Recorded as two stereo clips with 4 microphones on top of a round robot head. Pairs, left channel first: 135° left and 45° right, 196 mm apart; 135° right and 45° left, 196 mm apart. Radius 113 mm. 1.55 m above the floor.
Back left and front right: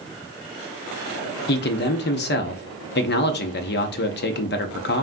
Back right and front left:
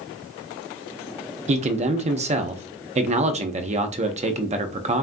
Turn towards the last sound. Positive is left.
turn(degrees=100)